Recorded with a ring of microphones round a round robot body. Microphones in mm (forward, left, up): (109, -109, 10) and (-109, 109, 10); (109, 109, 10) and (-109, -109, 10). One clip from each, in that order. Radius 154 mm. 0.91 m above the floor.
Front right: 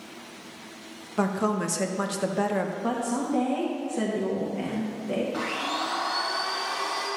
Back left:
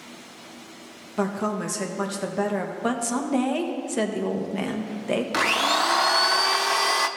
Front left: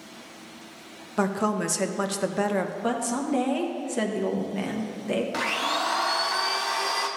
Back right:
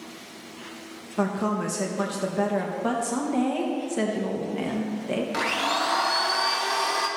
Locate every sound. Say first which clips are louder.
1.2 s a woman speaking: even, front left 1 dB; 40° left, 0.6 m
2.8 s a woman speaking: back left 2 dB, back right 1 dB; 120° left, 1.0 m
5.3 s a blender: back left 8 dB, back right 3 dB; 135° left, 0.6 m